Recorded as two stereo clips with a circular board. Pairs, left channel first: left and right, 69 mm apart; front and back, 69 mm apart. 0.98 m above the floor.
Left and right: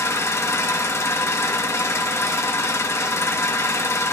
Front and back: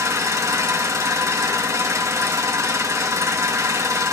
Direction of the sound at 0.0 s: 135° left.